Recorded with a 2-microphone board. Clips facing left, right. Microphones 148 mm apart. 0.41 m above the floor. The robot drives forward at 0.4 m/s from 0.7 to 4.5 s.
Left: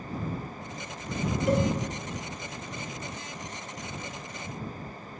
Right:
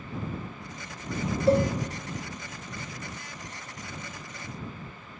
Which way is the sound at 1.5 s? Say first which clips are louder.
Right 4 dB; 30° right (ahead or behind).